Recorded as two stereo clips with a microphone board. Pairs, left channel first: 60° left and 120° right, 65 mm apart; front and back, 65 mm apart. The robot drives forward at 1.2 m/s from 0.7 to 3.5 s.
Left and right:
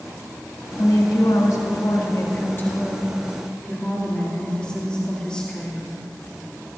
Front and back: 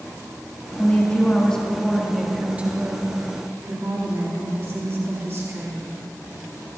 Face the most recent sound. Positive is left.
turn(degrees=135)